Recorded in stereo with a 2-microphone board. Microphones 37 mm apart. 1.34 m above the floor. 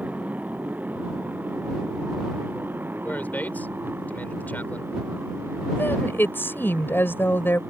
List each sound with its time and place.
0.0 s a motorcycle: 40° right (ahead or behind); by 7.7 s 80° right
3.0 s a man speaking: 50° left (ahead or behind)
5.8 s a woman speaking: 75° left (ahead or behind)